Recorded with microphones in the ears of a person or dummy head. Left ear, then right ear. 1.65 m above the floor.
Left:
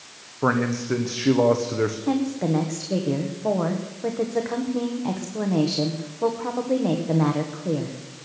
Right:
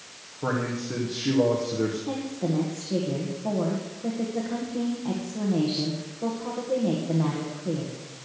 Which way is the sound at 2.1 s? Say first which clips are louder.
Left 5 dB; 70° left (ahead or behind).